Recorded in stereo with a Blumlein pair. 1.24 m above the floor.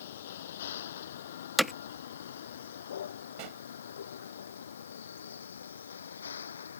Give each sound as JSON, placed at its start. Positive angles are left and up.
{"t": 0.0, "sound": "a vehicle", "azimuth_deg": 60}
{"t": 1.6, "sound": "hammering", "azimuth_deg": 0}
{"t": 3.4, "sound": "a pop", "azimuth_deg": -40}